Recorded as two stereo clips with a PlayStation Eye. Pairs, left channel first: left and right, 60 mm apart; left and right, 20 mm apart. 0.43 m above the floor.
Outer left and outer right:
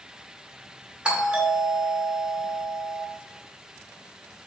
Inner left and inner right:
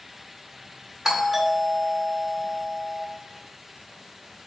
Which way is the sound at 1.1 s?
20° right (ahead or behind).